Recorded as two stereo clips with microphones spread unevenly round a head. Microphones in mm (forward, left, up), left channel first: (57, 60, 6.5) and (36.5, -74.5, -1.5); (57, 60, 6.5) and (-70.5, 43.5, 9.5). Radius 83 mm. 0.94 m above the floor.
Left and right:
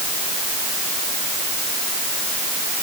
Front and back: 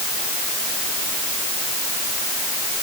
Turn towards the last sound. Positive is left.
No sound to turn to.